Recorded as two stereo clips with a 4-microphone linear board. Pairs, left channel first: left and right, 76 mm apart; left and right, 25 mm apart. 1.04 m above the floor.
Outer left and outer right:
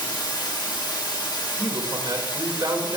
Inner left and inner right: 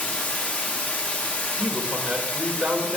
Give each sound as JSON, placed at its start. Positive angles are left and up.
{"t": 0.0, "sound": "running water", "side_deg": 70, "distance_m": 1.8}
{"t": 1.6, "sound": "a man speaking", "side_deg": -65, "distance_m": 2.0}